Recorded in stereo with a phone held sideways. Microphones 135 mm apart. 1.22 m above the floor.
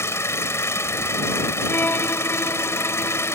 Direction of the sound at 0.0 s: 20° left (ahead or behind).